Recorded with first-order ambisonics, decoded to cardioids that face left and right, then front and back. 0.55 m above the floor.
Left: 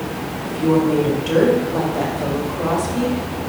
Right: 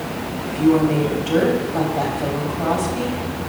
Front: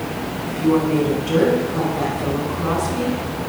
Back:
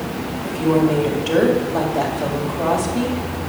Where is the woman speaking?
155° left, 2 m.